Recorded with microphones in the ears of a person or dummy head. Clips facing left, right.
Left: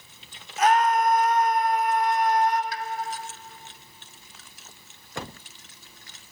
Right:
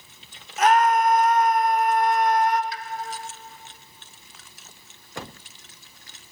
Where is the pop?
40° left (ahead or behind), 0.7 m.